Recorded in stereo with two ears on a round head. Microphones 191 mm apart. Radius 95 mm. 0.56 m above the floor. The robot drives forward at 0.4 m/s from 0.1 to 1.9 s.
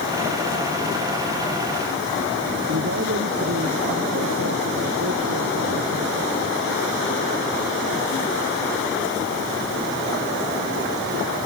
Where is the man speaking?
55° right (ahead or behind).